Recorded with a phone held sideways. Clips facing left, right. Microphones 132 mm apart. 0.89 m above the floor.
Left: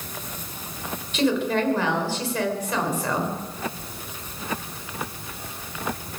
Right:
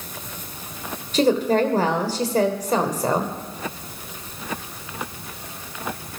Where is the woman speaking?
35° right (ahead or behind), 3 m.